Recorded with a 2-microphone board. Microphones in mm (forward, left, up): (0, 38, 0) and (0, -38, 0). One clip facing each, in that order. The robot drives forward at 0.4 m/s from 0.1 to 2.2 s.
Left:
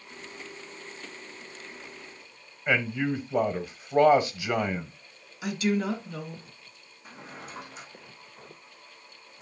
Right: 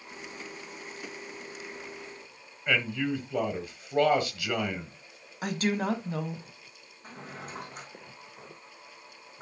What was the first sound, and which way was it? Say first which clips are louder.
A man speaking: left 2 dB; 15° left (ahead or behind).